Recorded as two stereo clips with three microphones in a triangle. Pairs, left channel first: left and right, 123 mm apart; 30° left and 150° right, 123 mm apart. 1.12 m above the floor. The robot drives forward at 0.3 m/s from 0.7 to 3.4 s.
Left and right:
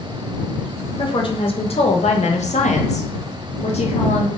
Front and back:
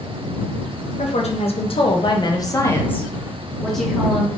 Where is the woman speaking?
45° left, 0.7 m; by 4.3 s 115° left, 0.6 m.